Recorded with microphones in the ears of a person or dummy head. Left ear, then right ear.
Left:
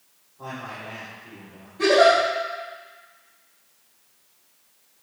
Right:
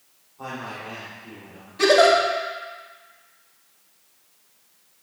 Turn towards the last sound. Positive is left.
turn(degrees=-75)  # may be behind; listen again after turning